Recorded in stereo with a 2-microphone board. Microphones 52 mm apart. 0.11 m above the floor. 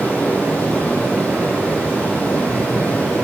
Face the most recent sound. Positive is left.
turn(degrees=25)  # may be behind; listen again after turning